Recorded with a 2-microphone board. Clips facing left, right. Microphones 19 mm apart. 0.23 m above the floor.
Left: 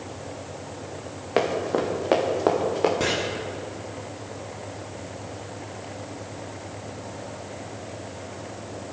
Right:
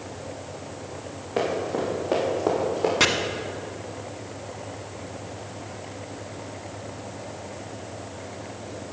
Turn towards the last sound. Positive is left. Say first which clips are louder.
# right 6 dB
turn(degrees=-55)  # may be behind; listen again after turning